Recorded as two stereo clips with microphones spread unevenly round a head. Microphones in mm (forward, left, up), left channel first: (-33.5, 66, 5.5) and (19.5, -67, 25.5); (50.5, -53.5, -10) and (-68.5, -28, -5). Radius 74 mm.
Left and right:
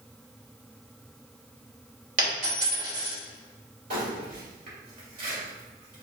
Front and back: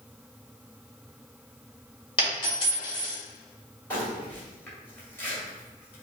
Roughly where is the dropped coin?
Ahead right.